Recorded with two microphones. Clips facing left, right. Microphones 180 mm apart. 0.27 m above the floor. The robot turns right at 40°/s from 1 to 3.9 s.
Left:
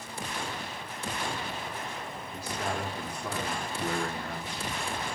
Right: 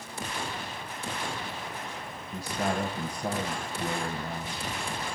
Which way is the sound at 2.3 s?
110° right.